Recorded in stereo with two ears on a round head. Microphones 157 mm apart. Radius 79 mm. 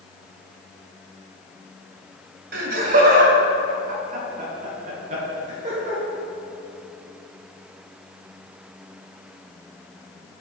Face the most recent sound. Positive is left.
turn(degrees=-40)  # may be behind; listen again after turning